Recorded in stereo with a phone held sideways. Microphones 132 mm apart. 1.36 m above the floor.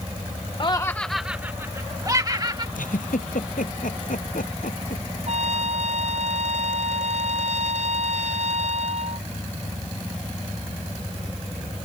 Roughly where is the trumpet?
Right.